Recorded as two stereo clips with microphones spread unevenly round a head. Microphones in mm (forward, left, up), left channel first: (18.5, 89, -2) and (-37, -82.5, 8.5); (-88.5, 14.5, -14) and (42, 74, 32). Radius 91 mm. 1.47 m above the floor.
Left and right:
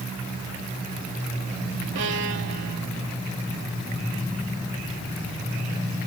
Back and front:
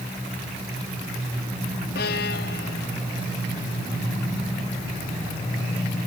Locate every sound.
1.9 s a violin: 130° right